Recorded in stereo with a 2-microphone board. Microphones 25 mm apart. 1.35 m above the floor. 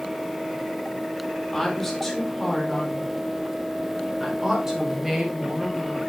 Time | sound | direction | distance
1.5 | a woman speaking | 10° left (ahead or behind) | 4 m